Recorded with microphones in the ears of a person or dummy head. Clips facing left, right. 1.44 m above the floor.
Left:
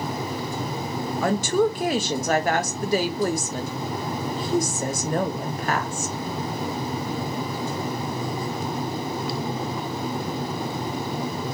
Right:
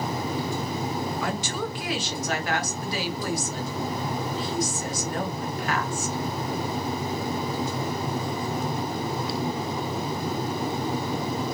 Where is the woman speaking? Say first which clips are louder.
Left 9 dB; 45° left (ahead or behind), 0.6 m.